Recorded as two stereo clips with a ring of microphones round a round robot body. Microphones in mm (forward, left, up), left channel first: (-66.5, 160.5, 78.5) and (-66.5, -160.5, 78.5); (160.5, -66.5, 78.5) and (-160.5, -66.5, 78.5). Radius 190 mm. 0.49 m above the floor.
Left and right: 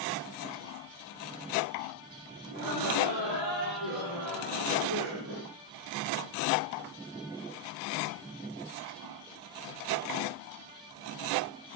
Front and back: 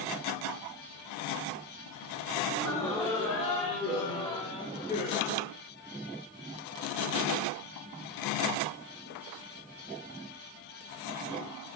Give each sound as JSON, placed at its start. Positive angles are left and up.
{"t": 2.5, "sound": "laughter", "azimuth_deg": -80, "distance_m": 9.5}